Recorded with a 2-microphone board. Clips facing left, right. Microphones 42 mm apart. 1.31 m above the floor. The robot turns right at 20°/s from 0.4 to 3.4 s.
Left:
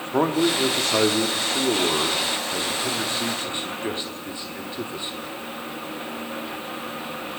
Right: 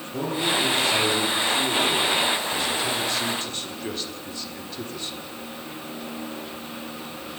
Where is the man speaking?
100° left, 3 m; by 5.1 s 160° left, 3 m.